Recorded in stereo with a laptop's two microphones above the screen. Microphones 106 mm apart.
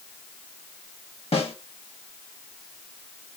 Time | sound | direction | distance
1.3 | a snare drum | 65° left (ahead or behind) | 1.2 m